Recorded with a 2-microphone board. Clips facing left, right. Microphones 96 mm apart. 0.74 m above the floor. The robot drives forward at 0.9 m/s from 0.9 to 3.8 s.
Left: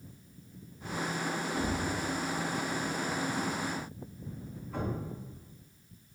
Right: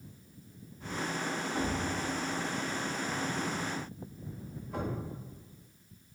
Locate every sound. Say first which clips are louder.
1.6 s a thud: right 1 dB; 5° right (ahead or behind), 0.8 m; by 5.1 s centre (ahead or behind), 3 m